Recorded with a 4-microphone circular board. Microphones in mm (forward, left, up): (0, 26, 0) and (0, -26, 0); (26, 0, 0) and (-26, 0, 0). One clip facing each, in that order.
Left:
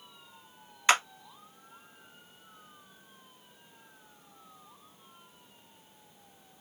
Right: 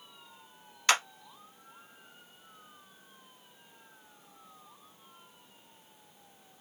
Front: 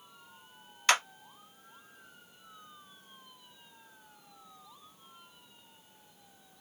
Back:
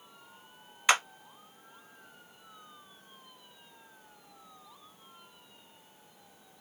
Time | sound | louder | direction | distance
0.9 | a clap | left 2 dB, back 1 dB | 120° left | 0.8 m